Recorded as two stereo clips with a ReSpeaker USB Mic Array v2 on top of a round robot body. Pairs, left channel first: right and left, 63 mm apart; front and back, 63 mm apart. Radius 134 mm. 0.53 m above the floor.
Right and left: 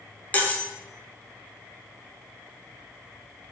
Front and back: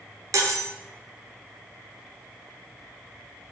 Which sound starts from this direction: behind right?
Cutlery clinking, at 0.3 s.